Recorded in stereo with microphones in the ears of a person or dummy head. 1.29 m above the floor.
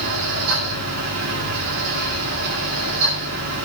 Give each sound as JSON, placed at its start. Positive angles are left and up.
{"t": 0.0, "sound": "a fan", "side_deg": -75, "distance_m": 9.5}